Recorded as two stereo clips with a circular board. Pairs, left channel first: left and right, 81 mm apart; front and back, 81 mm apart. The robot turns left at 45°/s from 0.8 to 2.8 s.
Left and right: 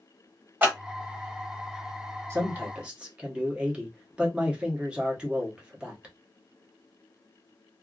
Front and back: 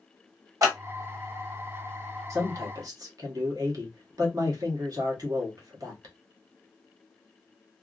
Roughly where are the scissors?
Behind right.